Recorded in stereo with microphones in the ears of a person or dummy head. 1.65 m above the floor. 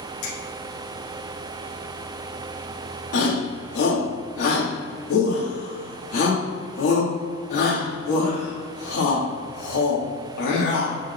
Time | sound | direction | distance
0.2 | a finger snap | 70° left (ahead or behind) | 2 m
3.1 | a shout | 55° left (ahead or behind) | 2 m